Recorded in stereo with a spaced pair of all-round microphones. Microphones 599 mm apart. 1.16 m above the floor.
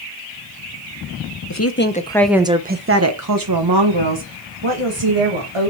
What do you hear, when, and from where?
1.5 s a woman speaking: 30° left (ahead or behind), 0.8 m; by 5.7 s 60° right (ahead or behind), 2 m